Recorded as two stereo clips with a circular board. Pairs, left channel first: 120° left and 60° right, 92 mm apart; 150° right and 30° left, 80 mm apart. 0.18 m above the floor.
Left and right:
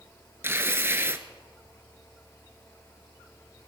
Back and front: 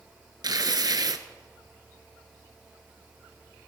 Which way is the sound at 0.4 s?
Straight ahead.